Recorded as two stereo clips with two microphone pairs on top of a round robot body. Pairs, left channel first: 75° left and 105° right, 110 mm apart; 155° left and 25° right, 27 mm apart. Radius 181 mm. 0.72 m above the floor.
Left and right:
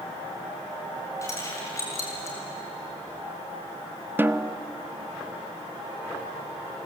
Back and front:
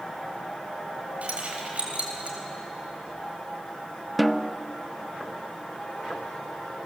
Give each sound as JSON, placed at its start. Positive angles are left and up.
{"t": 1.2, "sound": "keys jangling", "azimuth_deg": 10, "distance_m": 3.0}
{"t": 4.2, "sound": "a snare drum", "azimuth_deg": -120, "distance_m": 0.8}